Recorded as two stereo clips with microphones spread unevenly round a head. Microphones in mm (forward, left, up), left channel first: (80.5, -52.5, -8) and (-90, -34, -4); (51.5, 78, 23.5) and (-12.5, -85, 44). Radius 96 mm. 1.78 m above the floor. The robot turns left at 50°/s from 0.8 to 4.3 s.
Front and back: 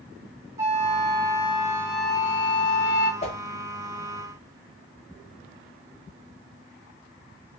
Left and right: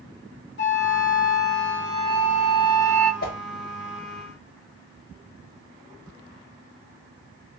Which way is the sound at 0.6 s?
100° left.